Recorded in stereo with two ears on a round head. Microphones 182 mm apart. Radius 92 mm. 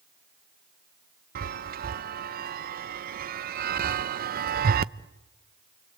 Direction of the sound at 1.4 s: 45° right (ahead or behind).